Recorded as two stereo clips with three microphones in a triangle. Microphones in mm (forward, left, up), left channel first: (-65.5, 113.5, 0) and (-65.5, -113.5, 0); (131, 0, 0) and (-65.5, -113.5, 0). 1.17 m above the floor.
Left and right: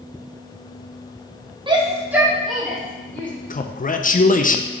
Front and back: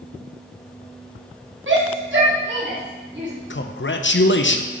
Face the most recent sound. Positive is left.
turn(degrees=45)